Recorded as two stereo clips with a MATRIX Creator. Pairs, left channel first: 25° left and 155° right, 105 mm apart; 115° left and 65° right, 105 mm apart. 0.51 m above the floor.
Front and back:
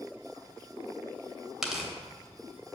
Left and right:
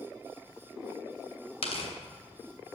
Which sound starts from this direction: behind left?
Tearing paper, at 1.6 s.